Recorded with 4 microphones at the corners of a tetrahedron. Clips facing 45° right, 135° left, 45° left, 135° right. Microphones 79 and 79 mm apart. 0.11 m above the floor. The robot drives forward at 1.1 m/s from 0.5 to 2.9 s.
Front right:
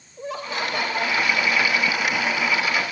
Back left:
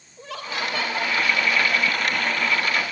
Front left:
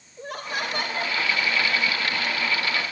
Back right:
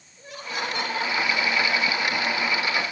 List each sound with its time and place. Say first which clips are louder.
0.2 s laughter: front right 2 dB, front left 2 dB; 20° left, 2.5 m; by 1.2 s 30° left, 2 m